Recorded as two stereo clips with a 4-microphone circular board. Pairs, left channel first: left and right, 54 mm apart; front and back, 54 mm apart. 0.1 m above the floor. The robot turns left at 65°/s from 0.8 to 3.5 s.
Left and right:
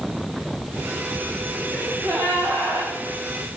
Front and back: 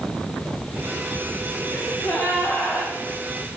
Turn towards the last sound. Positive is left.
turn(degrees=-150)